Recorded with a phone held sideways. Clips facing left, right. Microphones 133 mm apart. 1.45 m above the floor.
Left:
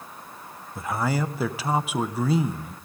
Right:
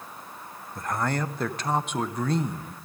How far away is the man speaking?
About 0.7 m.